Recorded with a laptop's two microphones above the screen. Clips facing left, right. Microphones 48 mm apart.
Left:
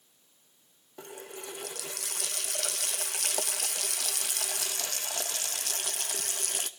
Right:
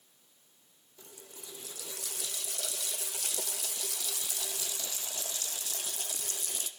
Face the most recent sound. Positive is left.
turn(degrees=65)  # may be behind; listen again after turning